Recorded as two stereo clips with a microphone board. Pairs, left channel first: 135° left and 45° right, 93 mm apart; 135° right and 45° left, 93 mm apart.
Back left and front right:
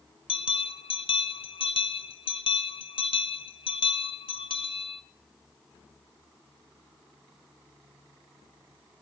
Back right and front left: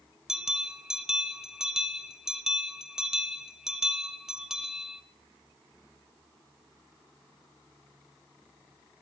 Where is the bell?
130° left, 1.0 m.